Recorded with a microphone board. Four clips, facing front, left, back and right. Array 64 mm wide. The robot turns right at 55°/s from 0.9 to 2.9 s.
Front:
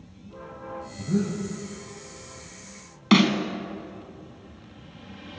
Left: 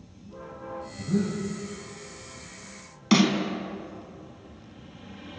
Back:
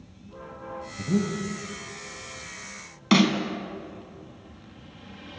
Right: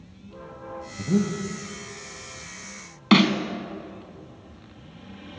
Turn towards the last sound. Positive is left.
turn(degrees=-75)